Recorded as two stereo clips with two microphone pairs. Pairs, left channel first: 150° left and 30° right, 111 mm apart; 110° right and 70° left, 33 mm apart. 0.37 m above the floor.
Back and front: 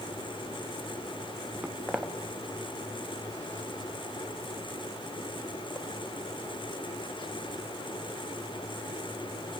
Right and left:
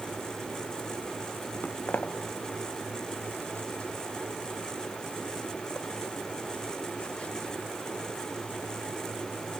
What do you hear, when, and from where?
1.6 s footsteps: 115° right, 2.5 m; by 7.6 s 170° right, 5 m